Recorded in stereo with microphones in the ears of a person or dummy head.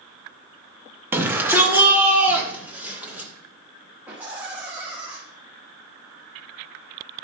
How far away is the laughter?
About 2.0 m.